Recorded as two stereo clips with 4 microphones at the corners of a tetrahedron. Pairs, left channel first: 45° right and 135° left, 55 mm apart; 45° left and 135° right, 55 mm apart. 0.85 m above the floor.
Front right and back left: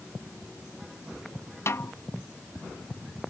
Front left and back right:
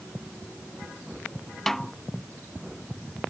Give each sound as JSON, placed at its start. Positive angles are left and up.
{"t": 1.7, "sound": "a snare drum", "azimuth_deg": -40}